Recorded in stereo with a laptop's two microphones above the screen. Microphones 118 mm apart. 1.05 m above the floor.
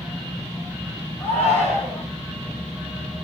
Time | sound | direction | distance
1.2 | a shout | 15° left (ahead or behind) | 6 m